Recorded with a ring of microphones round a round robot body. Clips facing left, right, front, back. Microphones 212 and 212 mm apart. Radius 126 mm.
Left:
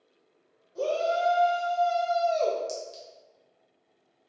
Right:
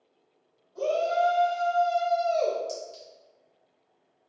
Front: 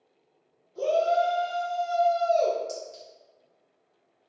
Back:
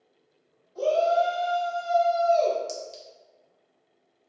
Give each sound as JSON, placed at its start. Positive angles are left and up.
{"t": 0.8, "sound": "a shout", "azimuth_deg": 65, "distance_m": 1.8}
{"t": 2.7, "sound": "a clink", "azimuth_deg": 155, "distance_m": 0.9}